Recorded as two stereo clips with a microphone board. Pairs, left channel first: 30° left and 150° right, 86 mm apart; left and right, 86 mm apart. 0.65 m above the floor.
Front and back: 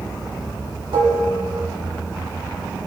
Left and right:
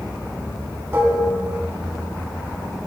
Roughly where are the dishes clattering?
Behind right.